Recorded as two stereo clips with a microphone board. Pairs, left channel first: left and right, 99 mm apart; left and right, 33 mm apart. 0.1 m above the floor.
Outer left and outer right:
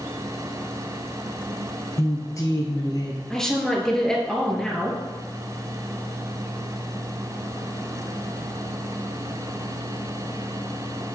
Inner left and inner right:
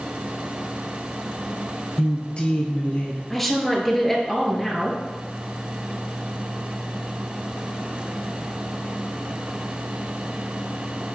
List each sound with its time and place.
2.0 s a woman speaking: 30° left (ahead or behind), 1.4 m; by 3.2 s 40° left (ahead or behind), 2 m
3.3 s a woman speaking: 5° left (ahead or behind), 1.5 m